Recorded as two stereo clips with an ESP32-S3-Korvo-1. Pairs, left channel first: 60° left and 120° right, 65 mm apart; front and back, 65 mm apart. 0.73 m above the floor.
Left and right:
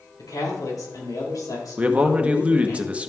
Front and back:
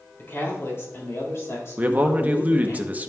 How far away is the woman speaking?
About 4 m.